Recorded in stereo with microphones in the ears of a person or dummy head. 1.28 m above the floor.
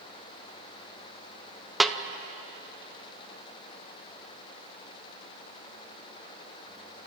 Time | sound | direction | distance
1.8 | a snare drum | centre (ahead or behind) | 0.7 m